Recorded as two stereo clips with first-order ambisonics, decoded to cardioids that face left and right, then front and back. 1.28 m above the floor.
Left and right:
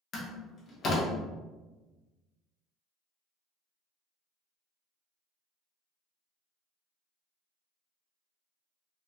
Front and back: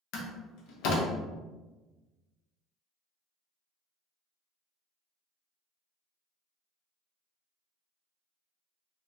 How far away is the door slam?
About 0.7 m.